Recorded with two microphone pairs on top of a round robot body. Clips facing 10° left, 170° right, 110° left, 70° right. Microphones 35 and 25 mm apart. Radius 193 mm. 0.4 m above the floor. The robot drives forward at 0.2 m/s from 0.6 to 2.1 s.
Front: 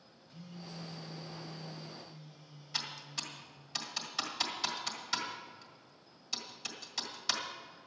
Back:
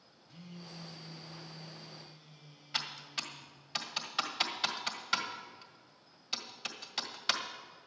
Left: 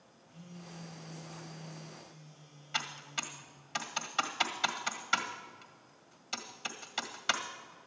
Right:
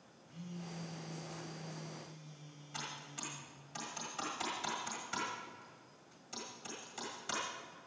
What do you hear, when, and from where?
0.3 s a phone buzzing: 130° right, 2.5 m; by 3.6 s 135° right, 2.5 m
2.7 s typing on a keyboard: 135° left, 1.7 m